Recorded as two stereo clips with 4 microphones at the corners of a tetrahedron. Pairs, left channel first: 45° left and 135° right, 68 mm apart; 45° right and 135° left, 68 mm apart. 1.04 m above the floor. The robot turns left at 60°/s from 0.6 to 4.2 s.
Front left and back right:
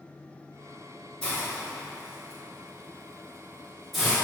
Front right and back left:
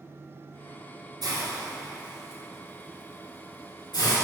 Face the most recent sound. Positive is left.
turn(degrees=-60)